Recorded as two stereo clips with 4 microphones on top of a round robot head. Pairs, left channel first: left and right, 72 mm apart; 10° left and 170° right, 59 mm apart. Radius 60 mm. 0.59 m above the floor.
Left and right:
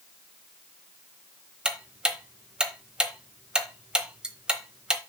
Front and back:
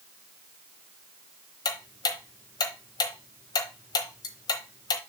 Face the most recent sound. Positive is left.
turn(degrees=-10)